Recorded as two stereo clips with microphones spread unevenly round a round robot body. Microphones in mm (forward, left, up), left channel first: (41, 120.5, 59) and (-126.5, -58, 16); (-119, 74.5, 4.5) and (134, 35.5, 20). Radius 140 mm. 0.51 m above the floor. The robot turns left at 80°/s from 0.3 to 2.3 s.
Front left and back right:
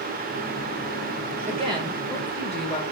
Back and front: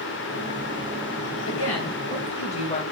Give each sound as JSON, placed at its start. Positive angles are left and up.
{"t": 1.5, "sound": "a woman speaking", "azimuth_deg": 180, "distance_m": 1.9}